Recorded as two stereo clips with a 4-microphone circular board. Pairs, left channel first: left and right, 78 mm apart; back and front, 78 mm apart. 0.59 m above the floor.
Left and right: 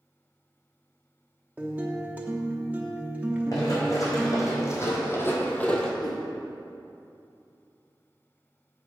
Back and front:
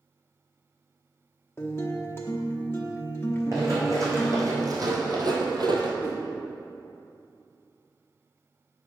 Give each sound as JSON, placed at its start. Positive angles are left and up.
{"t": 1.6, "sound": "a guitar", "azimuth_deg": -150, "distance_m": 0.9}
{"t": 3.5, "sound": "running footsteps", "azimuth_deg": 50, "distance_m": 2.5}
{"t": 6.0, "sound": "a whoosh", "azimuth_deg": 60, "distance_m": 2.0}